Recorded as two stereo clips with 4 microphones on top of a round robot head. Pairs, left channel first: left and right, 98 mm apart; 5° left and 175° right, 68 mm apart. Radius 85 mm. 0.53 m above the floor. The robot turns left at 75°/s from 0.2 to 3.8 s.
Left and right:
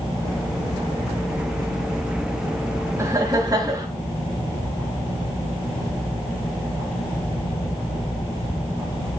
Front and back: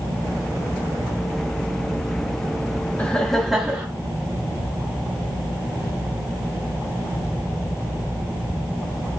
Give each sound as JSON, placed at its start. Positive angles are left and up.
{"t": 3.0, "sound": "laughter", "azimuth_deg": -55, "distance_m": 1.2}